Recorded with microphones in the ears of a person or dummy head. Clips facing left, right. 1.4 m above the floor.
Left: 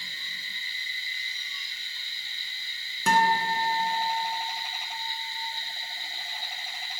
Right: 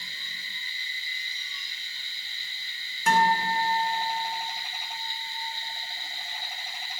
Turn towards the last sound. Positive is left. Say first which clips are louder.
# right 1 dB
turn(degrees=85)